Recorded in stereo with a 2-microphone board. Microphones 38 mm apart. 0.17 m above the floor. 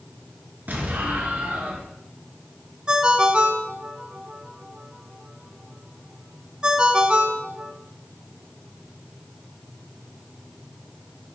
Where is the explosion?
50° right (ahead or behind), 1.9 m.